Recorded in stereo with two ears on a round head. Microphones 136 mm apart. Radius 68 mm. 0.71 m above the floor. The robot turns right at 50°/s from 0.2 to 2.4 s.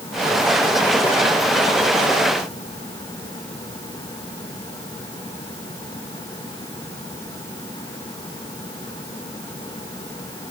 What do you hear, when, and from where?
Only background noise.